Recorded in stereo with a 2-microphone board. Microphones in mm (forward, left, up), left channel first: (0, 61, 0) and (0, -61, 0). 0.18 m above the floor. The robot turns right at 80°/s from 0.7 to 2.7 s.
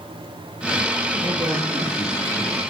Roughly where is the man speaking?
Ahead right.